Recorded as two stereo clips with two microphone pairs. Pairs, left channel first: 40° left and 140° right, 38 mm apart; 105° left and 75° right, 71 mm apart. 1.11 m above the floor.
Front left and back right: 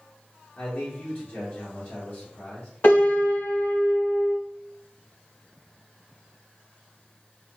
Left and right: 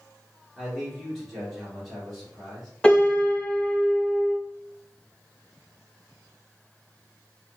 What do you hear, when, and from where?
0.6 s a man speaking: 15° left, 1.5 m
2.8 s a piano: 30° left, 1.8 m